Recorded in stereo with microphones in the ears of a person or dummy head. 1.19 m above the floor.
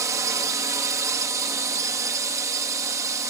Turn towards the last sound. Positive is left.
turn(degrees=-20)  # may be behind; listen again after turning